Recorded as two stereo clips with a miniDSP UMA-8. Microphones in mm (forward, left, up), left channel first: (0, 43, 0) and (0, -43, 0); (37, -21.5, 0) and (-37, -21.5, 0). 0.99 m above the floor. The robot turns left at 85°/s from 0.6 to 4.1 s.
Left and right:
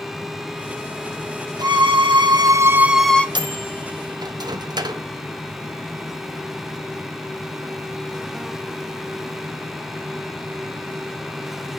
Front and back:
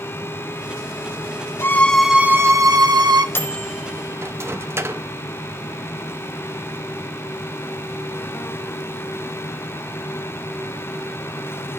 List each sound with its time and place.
1.6 s a violin: 55° right, 0.7 m; by 3.2 s 165° left, 0.7 m
3.4 s a microwave: 60° right, 0.7 m; by 5.0 s 125° right, 0.7 m